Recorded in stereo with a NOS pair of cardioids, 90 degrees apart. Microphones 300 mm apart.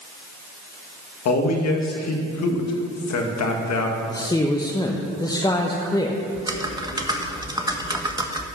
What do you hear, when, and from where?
1.2 s a man speaking: 65° left, 1.5 m
4.1 s a man speaking: 15° left, 0.8 m
6.3 s typing on a keyboard: 15° right, 1.0 m